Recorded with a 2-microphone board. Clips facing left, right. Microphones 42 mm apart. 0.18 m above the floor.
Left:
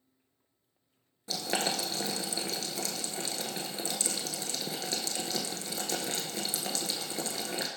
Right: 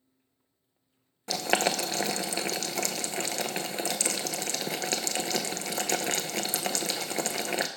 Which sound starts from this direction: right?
Boiling, at 1.3 s.